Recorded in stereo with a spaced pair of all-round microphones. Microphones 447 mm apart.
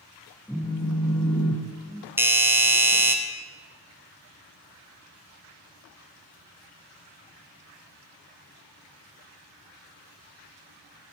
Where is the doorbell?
5° right (ahead or behind), 0.7 m.